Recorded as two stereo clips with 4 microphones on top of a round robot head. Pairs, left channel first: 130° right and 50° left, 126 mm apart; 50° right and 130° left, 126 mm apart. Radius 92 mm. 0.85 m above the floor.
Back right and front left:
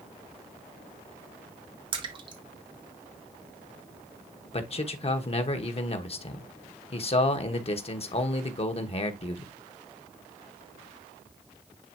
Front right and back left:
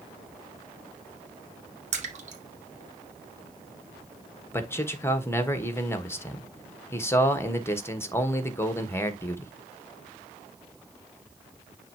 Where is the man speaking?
115° right, 1.3 m.